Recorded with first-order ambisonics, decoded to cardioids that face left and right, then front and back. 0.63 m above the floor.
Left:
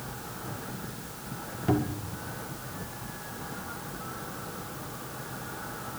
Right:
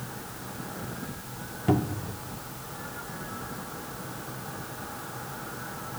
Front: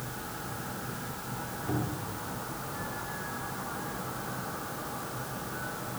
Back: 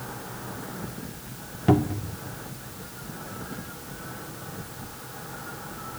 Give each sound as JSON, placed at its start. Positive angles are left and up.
{"t": 1.7, "sound": "a cupboard door", "azimuth_deg": -170, "distance_m": 1.6}